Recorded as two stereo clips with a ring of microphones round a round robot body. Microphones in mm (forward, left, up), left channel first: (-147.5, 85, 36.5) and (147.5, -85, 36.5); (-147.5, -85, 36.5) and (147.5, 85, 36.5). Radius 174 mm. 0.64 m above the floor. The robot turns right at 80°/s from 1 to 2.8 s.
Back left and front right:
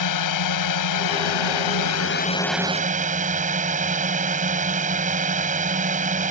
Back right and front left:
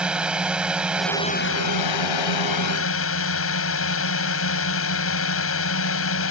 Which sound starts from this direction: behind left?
A drone, at 0.0 s.